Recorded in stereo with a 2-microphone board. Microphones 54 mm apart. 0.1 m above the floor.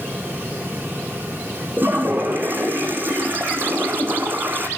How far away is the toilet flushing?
About 3.5 m.